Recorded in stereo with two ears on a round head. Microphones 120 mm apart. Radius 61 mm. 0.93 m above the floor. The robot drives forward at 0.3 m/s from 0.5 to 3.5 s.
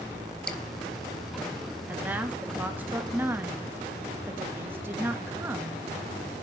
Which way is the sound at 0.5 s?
5° left (ahead or behind).